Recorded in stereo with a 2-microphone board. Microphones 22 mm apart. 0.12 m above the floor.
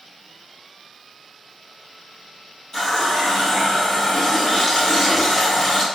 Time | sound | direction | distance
2.7 | a running tap | 20° left (ahead or behind) | 1.9 m